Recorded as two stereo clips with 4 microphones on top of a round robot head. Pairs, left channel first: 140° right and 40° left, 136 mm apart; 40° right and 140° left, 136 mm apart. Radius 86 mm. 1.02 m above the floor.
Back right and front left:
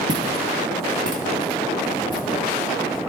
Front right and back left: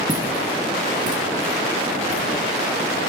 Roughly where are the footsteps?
Ahead left.